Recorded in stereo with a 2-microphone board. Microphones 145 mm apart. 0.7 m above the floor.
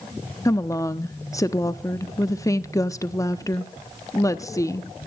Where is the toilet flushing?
No toilet flushing in this recording.